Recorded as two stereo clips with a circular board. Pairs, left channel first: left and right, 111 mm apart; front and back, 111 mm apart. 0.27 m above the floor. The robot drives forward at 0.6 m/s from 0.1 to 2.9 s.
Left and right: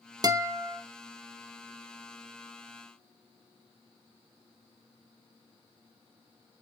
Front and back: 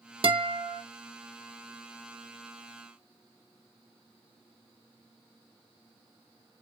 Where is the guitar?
140° right, 0.6 m; by 0.8 s 155° right, 0.9 m.